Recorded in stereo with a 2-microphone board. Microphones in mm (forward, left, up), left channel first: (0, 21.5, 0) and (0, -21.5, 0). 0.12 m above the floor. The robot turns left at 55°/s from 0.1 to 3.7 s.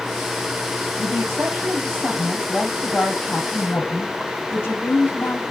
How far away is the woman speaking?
About 5.5 m.